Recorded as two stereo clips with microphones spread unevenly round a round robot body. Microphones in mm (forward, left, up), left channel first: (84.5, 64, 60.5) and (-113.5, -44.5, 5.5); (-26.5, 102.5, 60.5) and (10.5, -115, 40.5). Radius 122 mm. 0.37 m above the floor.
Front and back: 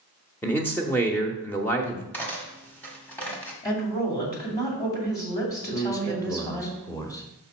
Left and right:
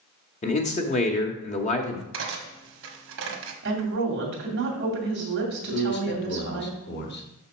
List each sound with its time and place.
0.4 s a man speaking: 130° left, 0.9 m
2.1 s cutlery clinking: 60° right, 1.4 m
3.6 s a woman speaking: 50° right, 2.5 m
5.7 s a man speaking: 115° left, 1.2 m